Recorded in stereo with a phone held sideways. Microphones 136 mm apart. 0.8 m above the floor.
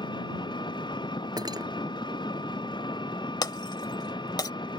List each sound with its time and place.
0.0 s an engine running: 35° left (ahead or behind)
1.4 s cutlery clinking: 30° right (ahead or behind)
3.4 s breaking glass: 35° left (ahead or behind)